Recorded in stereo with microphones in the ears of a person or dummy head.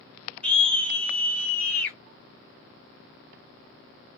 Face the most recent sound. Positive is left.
turn(degrees=5)  # may be behind; listen again after turning